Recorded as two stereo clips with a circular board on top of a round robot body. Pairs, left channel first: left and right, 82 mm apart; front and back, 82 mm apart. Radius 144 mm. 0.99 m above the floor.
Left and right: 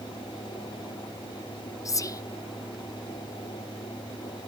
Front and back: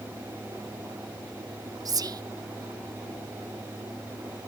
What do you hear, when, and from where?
1.9 s whispering: 140° left, 0.7 m